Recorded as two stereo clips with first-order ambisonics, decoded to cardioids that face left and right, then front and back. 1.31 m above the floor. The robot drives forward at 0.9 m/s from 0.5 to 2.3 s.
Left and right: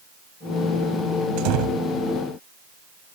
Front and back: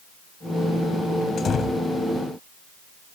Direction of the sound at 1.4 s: 65° right.